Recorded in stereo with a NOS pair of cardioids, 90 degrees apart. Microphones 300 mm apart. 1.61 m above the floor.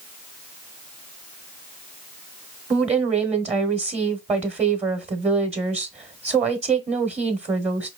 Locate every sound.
2.7 s a woman speaking: 20° right, 1.1 m